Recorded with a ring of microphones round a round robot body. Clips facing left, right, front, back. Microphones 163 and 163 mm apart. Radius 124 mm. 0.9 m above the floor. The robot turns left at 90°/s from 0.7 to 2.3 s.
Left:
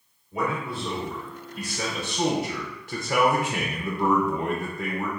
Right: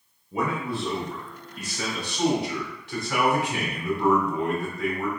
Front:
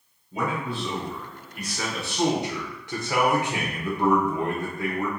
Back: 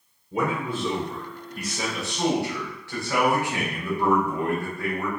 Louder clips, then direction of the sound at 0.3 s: Right 1 dB, back 2 dB; 150° right.